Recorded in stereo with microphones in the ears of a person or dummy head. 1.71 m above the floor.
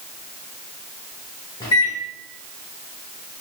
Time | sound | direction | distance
1.6 | a microwave | 15° left (ahead or behind) | 0.7 m